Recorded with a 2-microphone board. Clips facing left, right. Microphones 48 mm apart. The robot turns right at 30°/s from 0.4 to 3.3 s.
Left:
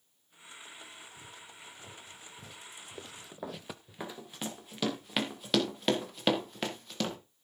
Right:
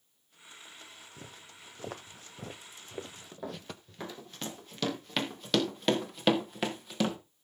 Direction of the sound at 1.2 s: 60° right (ahead or behind).